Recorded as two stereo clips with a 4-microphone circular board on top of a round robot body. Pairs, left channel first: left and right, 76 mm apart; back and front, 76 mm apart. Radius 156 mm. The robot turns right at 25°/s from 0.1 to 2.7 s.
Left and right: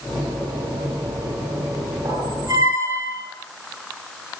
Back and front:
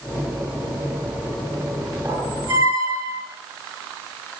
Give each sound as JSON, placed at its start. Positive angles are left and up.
{"t": 2.0, "sound": "a squeak", "azimuth_deg": -50, "distance_m": 9.5}